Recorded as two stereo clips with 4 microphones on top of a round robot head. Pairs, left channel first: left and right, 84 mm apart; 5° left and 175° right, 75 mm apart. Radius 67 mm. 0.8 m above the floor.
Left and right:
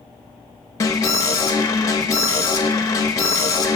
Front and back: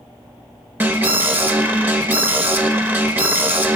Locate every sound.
0.8 s an alarm: 130° left, 0.8 m